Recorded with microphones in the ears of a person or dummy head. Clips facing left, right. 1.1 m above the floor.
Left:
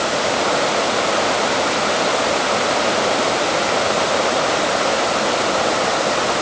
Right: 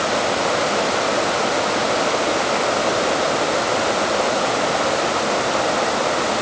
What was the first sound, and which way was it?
Only background noise.